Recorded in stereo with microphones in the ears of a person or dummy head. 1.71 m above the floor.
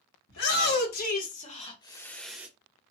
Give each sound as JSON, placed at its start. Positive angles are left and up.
{"t": 0.3, "sound": "a shout", "side_deg": 60, "distance_m": 1.4}